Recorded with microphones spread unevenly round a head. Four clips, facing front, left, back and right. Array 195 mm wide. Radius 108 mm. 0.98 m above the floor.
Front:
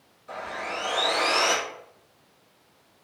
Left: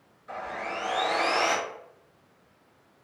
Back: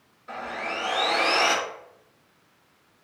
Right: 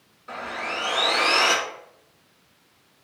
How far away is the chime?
No chime in this recording.